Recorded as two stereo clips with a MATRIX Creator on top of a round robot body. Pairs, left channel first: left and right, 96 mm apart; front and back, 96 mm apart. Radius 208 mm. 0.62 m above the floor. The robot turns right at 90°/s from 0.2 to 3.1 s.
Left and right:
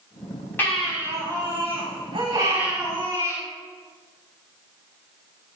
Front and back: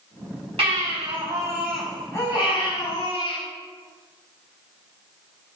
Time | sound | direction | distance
0.6 | a baby crying | 160° left | 5.5 m